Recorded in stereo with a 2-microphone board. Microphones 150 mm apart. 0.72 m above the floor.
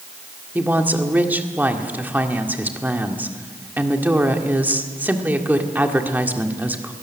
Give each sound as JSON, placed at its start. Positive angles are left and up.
{"t": 0.6, "sound": "a woman speaking", "side_deg": -10, "distance_m": 1.7}